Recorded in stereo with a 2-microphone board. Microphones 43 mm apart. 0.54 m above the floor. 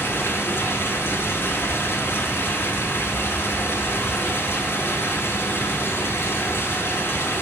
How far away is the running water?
About 3.5 m.